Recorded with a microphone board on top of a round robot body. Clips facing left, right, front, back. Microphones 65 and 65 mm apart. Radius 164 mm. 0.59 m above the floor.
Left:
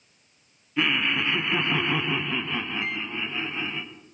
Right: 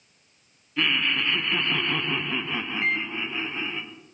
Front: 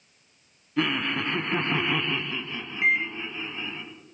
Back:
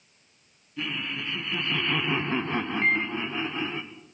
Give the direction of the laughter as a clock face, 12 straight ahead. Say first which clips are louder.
Left 1 dB, front 7 dB; 12 o'clock.